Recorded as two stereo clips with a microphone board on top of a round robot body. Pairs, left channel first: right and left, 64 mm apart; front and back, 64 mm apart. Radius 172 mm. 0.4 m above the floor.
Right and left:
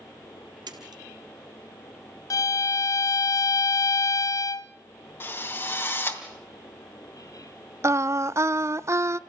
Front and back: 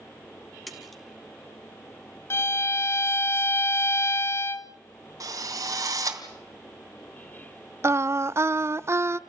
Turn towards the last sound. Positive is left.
turn(degrees=130)